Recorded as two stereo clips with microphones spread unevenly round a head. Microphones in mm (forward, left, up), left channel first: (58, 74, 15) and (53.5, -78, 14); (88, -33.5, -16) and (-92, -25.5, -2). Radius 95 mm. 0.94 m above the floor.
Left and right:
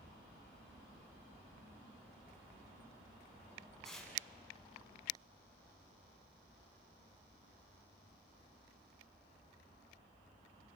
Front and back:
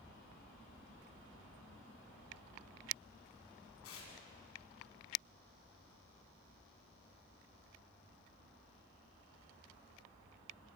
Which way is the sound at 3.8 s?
Straight ahead.